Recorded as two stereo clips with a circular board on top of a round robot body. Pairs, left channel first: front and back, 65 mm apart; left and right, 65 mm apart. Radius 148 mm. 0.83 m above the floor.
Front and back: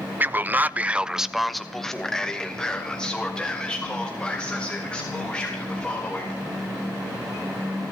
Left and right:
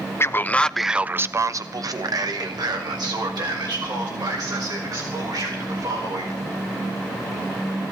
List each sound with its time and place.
0.2 s a man speaking: 130° left, 0.8 m; by 6.4 s 70° right, 4.5 m